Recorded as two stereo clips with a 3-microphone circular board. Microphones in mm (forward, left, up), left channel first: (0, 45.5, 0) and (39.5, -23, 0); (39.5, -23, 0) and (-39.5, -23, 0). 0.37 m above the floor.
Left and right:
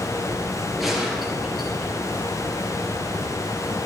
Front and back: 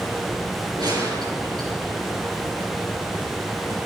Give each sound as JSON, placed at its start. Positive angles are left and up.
{"t": 0.8, "sound": "a gunshot", "azimuth_deg": -150, "distance_m": 4.5}